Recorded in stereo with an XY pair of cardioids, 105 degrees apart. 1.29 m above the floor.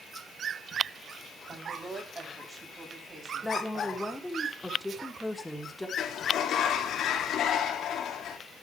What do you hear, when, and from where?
1.5 s a woman speaking: 35° right, 9 m; by 4.2 s 25° right, 9 m
3.4 s a woman speaking: 10° left, 4 m
6.0 s a sliding door: 70° left, 3 m